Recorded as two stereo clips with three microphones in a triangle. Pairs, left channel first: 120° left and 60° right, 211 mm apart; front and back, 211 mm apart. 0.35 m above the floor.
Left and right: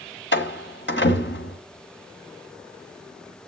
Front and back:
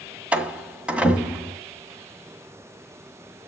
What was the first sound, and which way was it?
A door slam, 95° left.